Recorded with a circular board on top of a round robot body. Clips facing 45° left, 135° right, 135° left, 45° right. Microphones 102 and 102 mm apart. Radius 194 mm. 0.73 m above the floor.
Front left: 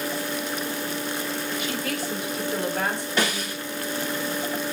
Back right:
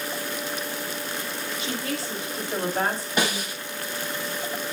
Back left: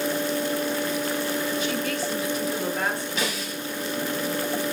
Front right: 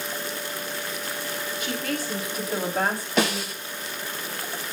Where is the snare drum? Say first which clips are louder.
Even, front right 5 dB; 60° right, 10 m.